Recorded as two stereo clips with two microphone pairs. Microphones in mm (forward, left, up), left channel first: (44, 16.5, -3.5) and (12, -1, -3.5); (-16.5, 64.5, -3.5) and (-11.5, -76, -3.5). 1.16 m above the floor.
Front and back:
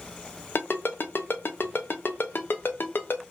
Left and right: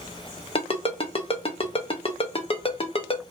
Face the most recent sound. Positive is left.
turn(degrees=45)